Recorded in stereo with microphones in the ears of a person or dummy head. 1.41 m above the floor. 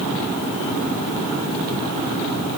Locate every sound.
Only background noise.